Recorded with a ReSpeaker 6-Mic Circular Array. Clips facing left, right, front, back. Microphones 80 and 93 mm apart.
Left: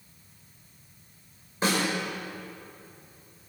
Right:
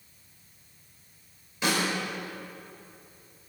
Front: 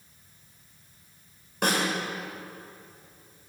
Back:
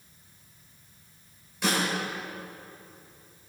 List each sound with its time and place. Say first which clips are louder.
1.6 s a snare drum: left 1 dB, front 2 dB; 35° left, 5 m